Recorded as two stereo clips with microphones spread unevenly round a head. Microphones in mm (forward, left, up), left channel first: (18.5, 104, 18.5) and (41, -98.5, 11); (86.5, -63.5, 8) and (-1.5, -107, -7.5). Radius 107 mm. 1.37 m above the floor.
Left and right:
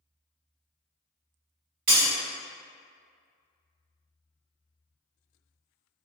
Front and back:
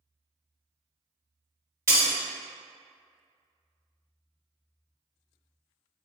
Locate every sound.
1.9 s breaking glass: 95° right, 1.7 m